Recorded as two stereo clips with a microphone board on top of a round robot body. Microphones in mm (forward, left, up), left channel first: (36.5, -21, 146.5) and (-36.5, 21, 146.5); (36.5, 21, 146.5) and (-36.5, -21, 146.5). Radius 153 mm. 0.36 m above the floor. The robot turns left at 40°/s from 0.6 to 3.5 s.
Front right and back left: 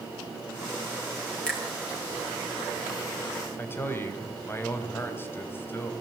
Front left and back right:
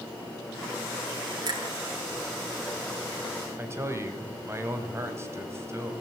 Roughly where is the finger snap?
Right.